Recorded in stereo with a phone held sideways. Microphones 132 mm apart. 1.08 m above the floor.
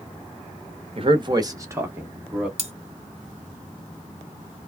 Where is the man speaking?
45° right (ahead or behind), 0.9 m; by 2.5 s 5° right (ahead or behind), 1.3 m.